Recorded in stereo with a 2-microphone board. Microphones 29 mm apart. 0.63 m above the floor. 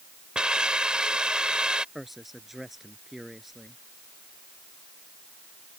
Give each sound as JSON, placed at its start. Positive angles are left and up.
{"t": 0.3, "sound": "a hiss", "side_deg": -35}
{"t": 1.9, "sound": "a man speaking", "side_deg": -5}